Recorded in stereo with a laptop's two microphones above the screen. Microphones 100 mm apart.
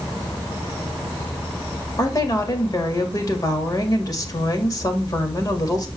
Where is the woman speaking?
40° left (ahead or behind), 1.9 m.